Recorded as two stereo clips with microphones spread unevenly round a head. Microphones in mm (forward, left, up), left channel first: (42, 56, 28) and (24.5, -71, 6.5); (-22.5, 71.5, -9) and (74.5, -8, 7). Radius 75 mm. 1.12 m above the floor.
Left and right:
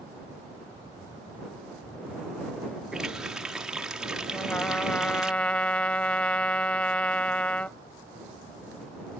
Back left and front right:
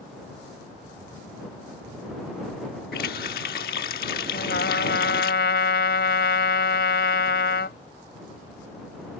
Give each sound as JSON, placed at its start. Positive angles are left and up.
{"t": 2.9, "sound": "a running tap", "azimuth_deg": 175}
{"t": 4.3, "sound": "a trumpet", "azimuth_deg": 165}